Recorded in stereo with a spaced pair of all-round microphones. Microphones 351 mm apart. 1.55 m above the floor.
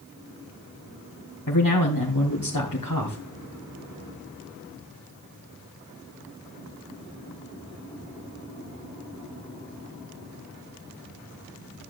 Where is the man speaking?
65° left (ahead or behind), 2.5 m.